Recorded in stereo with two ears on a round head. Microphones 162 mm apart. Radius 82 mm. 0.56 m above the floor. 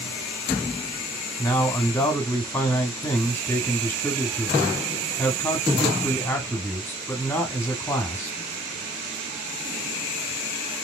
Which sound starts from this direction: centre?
A man speaking, at 1.4 s.